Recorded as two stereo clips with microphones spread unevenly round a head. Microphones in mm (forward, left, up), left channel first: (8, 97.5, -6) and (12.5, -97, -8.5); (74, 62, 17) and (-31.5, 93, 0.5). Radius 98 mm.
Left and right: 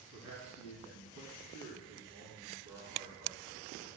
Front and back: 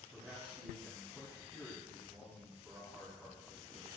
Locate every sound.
0.1 s a man speaking: 85° left, 3 m